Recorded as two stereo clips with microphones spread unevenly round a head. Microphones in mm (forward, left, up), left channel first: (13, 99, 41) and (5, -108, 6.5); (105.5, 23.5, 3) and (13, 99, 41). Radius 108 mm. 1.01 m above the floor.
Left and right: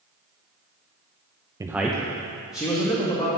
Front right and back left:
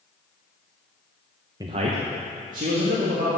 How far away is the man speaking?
About 0.5 m.